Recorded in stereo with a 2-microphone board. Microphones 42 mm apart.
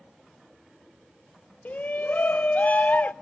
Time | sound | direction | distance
1.6 | a shout | 35° left (ahead or behind) | 0.5 m